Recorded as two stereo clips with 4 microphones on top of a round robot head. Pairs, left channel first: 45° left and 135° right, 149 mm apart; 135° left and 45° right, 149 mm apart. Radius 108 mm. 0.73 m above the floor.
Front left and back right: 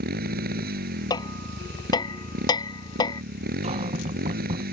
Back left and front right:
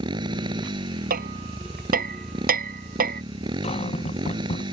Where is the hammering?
15° right.